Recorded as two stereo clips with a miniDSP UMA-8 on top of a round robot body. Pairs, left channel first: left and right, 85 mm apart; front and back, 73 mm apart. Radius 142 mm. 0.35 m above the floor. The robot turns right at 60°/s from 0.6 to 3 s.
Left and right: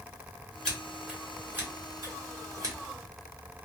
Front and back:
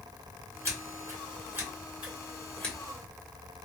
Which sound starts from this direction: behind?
Scissors, at 0.7 s.